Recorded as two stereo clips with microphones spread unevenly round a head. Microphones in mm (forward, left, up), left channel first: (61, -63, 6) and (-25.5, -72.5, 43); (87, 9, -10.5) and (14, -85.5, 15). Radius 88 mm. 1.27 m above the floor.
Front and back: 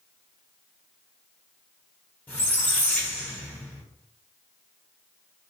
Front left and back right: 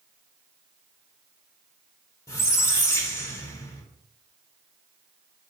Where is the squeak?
115° left, 1.0 m.